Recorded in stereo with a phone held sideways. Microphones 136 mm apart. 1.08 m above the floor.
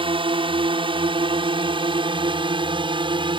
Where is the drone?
35° right (ahead or behind).